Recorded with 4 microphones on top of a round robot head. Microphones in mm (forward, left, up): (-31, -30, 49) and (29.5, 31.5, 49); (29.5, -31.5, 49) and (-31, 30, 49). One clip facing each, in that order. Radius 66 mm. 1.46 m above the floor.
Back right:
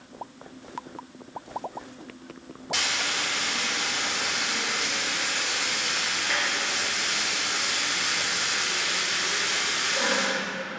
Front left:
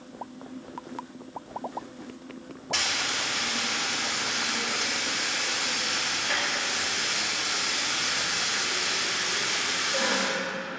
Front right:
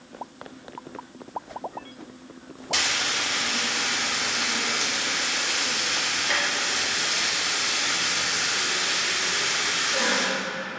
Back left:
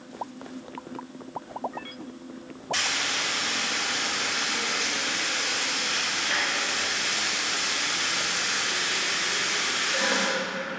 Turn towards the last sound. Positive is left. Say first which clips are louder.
# back right 1 dB, front right 2 dB
turn(degrees=-50)